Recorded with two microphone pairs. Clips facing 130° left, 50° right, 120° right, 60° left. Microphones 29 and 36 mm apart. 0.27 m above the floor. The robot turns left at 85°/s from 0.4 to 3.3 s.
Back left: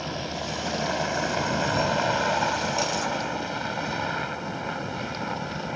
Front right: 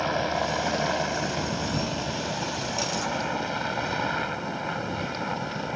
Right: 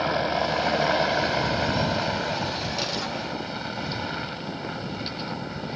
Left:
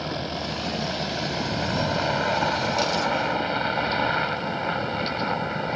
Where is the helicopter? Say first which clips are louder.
Front right 6 dB, right 6 dB; 85° right; by 5.8 s 35° left.